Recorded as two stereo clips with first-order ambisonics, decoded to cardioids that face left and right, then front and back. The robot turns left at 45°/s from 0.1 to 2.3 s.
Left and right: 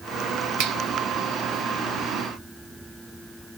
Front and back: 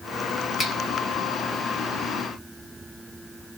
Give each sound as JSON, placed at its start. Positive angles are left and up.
{"t": 0.6, "sound": "a finger snap", "azimuth_deg": -90, "distance_m": 1.2}